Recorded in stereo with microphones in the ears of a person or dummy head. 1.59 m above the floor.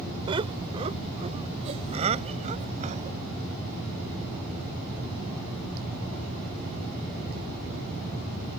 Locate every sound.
0.3 s laughter: 25° right (ahead or behind); by 3.2 s 35° right (ahead or behind)